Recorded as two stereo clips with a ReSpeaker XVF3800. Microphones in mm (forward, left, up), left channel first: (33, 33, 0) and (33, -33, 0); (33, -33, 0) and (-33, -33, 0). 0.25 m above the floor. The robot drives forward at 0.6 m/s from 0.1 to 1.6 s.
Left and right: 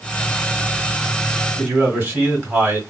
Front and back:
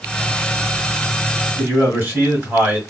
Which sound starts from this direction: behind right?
A man speaking, at 1.6 s.